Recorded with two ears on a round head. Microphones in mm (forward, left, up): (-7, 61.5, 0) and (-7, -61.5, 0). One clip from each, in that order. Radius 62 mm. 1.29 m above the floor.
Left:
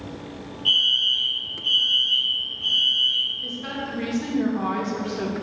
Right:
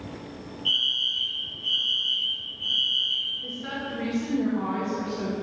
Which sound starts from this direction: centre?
A fire alarm, at 0.7 s.